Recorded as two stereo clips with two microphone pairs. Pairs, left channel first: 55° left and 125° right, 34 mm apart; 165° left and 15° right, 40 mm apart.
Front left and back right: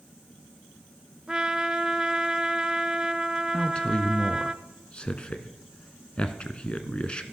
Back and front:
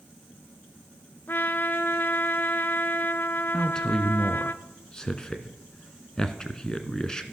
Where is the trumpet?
170° left, 0.7 m.